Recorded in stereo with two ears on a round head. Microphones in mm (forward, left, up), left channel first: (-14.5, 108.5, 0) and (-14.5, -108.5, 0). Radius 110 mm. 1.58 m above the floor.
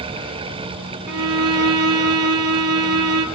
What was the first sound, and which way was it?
A violin, 65° right (ahead or behind).